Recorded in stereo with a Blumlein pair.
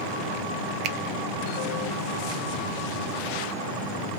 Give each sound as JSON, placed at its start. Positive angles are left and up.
{"t": 0.8, "sound": "a finger snap", "azimuth_deg": -40, "distance_m": 0.6}